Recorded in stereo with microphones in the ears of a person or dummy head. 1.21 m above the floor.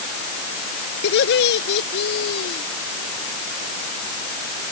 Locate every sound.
1.0 s laughter: 65° left (ahead or behind); by 2.6 s 70° left (ahead or behind)